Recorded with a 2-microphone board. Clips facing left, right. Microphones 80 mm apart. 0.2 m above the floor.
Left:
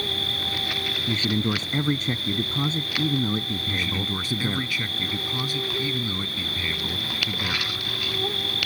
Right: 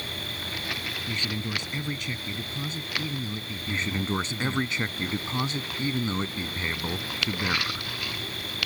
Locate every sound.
0.0 s an insect: 65° left (ahead or behind)
1.1 s a man speaking: 45° left (ahead or behind)
3.7 s a man speaking: 25° right (ahead or behind)